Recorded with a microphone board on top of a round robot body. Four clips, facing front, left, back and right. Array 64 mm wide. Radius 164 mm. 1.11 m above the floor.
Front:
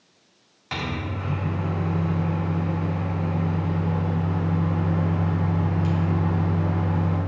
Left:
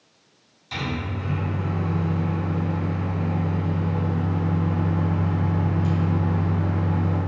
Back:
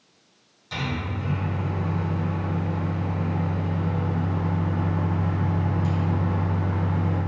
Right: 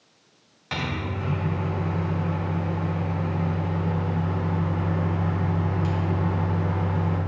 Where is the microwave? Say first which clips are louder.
Even, even; 50° right, 0.7 m.